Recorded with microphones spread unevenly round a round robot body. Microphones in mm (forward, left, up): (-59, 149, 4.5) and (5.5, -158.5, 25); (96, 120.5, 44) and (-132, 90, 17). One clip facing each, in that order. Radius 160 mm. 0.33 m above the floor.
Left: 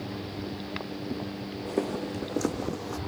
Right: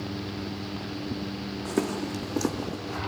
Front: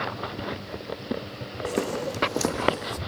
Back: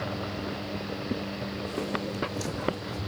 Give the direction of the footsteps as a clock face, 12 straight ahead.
1 o'clock.